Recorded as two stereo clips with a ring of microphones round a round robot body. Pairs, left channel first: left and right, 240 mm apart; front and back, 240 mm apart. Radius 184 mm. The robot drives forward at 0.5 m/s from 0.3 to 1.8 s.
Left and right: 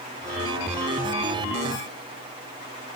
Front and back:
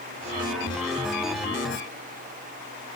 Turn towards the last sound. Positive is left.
No sound to turn to.